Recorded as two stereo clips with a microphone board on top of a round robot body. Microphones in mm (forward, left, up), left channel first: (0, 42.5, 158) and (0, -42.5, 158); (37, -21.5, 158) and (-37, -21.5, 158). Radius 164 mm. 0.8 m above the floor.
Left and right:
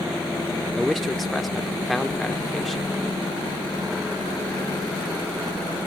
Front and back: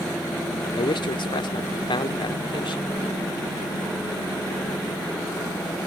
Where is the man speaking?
Straight ahead.